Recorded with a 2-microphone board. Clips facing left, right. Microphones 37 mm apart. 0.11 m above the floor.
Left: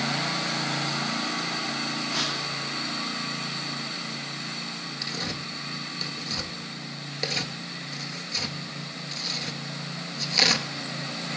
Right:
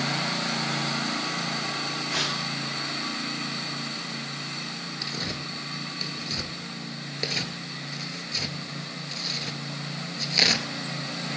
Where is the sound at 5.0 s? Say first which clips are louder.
Even; 5° right (ahead or behind), 0.6 m.